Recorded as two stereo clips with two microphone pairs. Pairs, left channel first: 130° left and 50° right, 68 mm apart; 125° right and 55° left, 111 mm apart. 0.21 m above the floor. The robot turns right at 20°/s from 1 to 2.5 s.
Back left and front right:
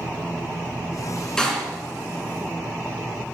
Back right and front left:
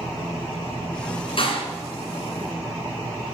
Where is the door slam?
150° right, 2 m; by 1.6 s 145° right, 2 m.